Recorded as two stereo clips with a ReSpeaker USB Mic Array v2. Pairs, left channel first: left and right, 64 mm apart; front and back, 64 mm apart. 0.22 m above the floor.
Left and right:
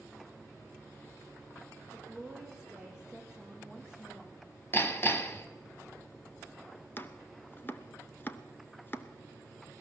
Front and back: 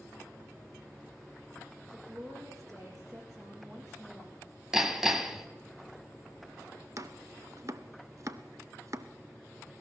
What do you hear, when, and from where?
1.9 s a woman speaking: 140° left, 7 m
4.7 s hammering: 100° left, 0.9 m
7.0 s chopping: 145° left, 0.6 m